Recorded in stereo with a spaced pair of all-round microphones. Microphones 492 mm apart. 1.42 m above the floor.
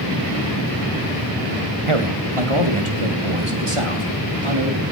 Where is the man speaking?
80° right, 2 m.